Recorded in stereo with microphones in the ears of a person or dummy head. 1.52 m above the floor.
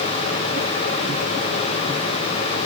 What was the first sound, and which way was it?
Only background noise.